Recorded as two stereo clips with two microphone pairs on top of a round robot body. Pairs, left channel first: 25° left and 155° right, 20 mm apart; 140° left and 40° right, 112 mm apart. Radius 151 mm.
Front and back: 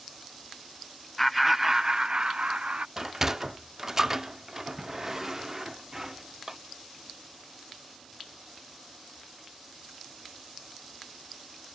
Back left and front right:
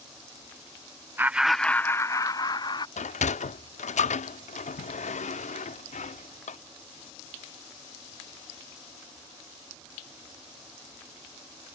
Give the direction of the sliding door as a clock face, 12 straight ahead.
7 o'clock.